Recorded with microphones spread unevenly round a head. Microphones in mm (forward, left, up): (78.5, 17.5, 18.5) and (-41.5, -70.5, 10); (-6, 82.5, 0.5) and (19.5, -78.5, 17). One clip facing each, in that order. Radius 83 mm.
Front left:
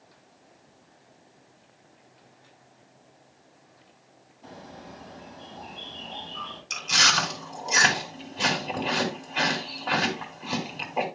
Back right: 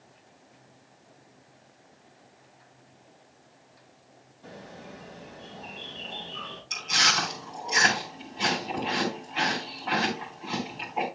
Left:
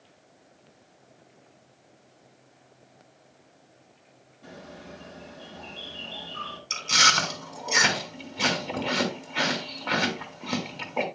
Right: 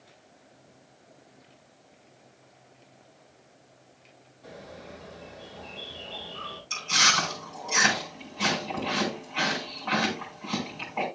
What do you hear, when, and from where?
4.4 s a bird: 115° left, 6 m
6.7 s chewing: 85° left, 2.5 m